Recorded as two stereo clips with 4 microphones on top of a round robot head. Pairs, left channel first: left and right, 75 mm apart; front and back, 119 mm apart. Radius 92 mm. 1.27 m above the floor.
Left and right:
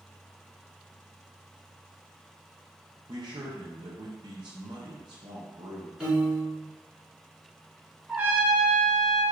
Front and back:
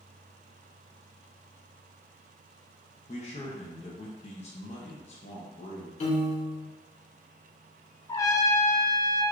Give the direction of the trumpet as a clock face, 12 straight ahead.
1 o'clock.